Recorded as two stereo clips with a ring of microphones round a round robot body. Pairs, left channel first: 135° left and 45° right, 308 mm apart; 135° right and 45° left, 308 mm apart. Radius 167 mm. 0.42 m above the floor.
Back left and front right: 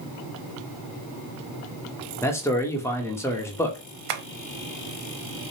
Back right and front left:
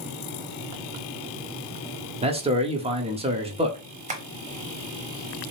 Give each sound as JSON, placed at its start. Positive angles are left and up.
{"t": 2.2, "sound": "a man speaking", "azimuth_deg": 70, "distance_m": 0.9}
{"t": 4.1, "sound": "tapping", "azimuth_deg": -25, "distance_m": 0.6}